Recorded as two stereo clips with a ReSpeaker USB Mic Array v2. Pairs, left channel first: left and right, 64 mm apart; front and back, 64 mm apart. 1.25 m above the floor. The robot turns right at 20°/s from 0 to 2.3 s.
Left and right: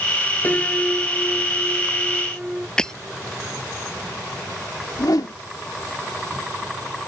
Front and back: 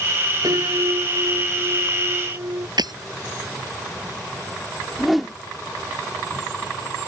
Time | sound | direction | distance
0.4 | a piano | 155° left | ?
2.8 | breaking glass | 170° left | ?
5.0 | a whoosh | 90° left | ?